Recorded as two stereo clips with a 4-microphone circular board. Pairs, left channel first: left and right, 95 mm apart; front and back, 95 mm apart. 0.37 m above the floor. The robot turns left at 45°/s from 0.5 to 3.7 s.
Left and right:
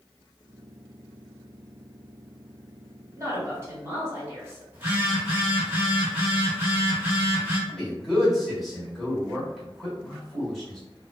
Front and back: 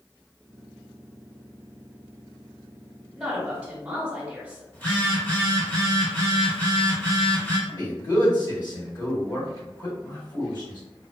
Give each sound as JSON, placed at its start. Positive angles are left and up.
{"t": 3.1, "sound": "a woman speaking", "azimuth_deg": -95, "distance_m": 1.3}
{"t": 4.7, "sound": "a phone buzzing", "azimuth_deg": -40, "distance_m": 1.3}
{"t": 7.7, "sound": "a man speaking", "azimuth_deg": 0, "distance_m": 1.9}